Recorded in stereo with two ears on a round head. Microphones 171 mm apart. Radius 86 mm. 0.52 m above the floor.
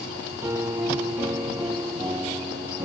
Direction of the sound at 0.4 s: 15° right (ahead or behind).